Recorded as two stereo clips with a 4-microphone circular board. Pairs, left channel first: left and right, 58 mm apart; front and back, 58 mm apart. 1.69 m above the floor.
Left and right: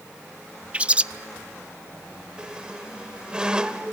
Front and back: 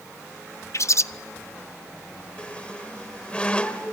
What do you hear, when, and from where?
0.7 s a bird: 25° right, 0.5 m
2.4 s a squeak: 40° right, 1.5 m